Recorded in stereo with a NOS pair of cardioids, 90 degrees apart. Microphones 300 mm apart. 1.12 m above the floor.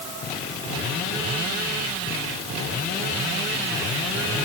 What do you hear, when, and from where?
Only background noise.